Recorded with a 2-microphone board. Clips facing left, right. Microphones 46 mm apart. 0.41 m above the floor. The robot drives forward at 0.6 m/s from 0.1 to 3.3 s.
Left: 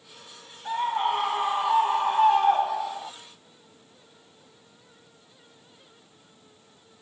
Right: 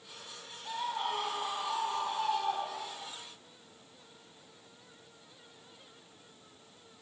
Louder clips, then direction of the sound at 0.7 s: Left 10 dB; 35° left (ahead or behind).